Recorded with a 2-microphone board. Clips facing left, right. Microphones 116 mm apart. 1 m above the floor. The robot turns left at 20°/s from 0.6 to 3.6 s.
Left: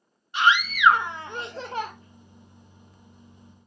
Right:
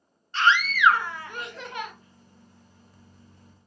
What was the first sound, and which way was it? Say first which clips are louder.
A scream: left 1 dB; 15° left (ahead or behind).